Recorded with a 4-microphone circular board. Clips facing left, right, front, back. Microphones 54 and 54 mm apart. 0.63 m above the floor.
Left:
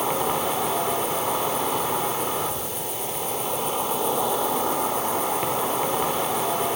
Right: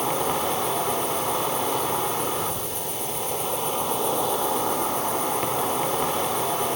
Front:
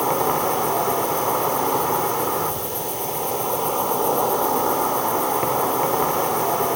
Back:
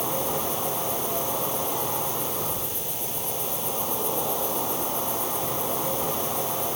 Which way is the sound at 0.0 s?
5° left.